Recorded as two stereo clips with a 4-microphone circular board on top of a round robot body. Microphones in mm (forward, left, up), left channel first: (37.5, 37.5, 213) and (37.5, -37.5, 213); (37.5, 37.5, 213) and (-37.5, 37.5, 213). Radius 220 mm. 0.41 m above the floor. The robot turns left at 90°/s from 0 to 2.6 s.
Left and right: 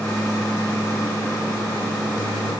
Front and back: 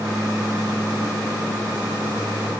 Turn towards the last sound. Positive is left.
No sound to turn to.